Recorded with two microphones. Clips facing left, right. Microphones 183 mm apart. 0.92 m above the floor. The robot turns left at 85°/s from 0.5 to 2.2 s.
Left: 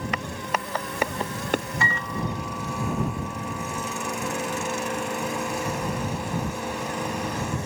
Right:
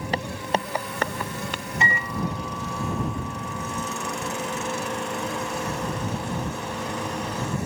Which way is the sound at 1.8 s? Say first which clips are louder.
Right 1 dB; 155° right.